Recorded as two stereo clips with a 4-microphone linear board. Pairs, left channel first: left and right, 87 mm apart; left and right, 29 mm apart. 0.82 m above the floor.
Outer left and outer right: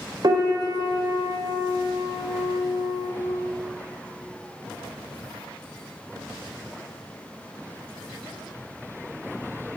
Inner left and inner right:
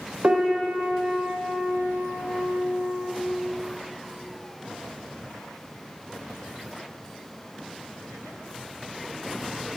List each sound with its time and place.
0.2 s a piano: 50° right (ahead or behind), 0.7 m